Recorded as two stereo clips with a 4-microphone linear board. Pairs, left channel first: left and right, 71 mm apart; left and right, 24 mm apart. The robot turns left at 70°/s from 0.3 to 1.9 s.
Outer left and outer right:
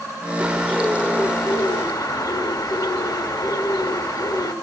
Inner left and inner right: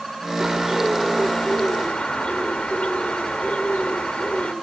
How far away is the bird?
About 1.0 m.